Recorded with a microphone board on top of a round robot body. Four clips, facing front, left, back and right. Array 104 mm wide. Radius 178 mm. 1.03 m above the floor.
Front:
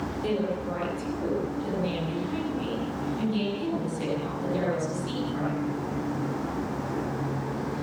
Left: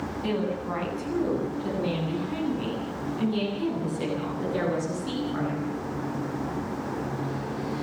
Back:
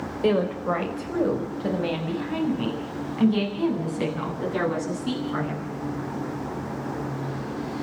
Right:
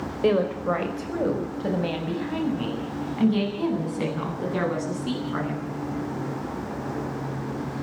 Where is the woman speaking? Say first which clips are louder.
Right 8 dB, back 7 dB; 125° right, 5 m; by 5.7 s 130° right, 13.5 m.